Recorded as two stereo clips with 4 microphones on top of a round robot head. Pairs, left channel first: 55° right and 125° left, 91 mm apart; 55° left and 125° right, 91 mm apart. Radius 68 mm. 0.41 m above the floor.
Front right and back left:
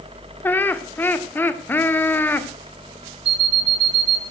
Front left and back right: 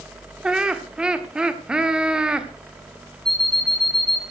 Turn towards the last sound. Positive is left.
turn(degrees=140)